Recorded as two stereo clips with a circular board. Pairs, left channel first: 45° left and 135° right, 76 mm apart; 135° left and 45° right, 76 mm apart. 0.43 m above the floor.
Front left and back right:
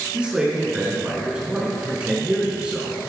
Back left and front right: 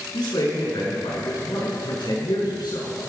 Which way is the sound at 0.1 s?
150° left.